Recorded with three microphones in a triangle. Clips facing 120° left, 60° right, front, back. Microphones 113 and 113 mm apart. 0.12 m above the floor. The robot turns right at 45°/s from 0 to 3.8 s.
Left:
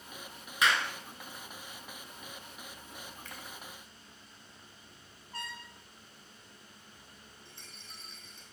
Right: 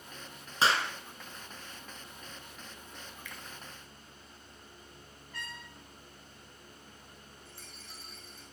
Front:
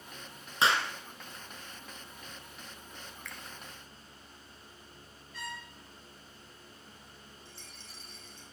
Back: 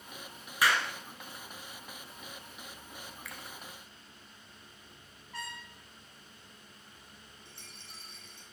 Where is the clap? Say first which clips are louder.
Right 1 dB, front 1 dB; 40° right, 1.3 m; by 0.9 s 25° right, 1.3 m.